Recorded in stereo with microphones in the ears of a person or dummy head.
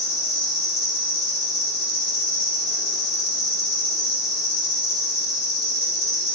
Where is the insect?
85° left, 1.4 m.